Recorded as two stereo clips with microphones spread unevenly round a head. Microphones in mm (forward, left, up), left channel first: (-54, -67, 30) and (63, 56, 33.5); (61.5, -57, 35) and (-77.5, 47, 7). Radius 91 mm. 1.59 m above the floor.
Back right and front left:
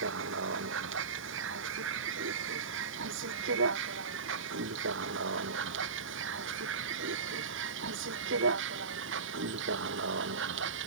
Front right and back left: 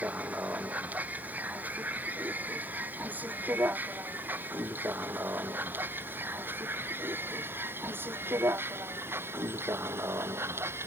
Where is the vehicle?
60° left; by 10.9 s 65° left.